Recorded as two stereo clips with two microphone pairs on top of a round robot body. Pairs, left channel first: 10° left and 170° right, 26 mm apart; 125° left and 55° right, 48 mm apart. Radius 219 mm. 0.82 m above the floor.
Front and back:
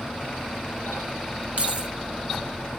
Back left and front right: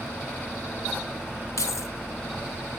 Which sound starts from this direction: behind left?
Keys jangling, at 1.6 s.